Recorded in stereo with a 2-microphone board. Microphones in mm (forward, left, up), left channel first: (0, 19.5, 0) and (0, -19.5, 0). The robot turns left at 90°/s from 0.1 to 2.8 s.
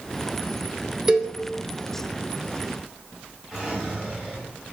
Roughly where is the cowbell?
Right.